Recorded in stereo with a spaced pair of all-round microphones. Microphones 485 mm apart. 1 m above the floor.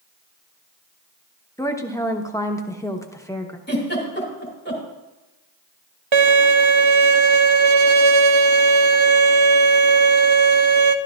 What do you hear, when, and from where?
1.6 s a woman speaking: 5° left (ahead or behind), 0.9 m
3.7 s a giggle: 20° left (ahead or behind), 2.5 m
6.1 s a violin: 70° right (ahead or behind), 0.7 m